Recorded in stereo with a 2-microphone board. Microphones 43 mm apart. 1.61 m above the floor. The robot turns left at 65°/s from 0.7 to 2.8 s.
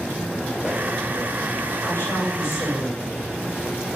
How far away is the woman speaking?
About 6 m.